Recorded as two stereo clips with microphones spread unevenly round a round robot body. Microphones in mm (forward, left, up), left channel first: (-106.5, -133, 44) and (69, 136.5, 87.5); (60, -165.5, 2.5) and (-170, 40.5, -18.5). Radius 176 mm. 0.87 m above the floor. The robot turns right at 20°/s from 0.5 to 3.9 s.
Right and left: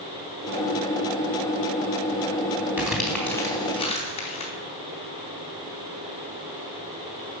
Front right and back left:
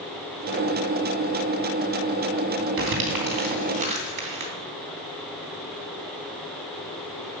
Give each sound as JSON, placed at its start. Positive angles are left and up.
{"t": 2.8, "sound": "crumpling", "azimuth_deg": 140, "distance_m": 3.5}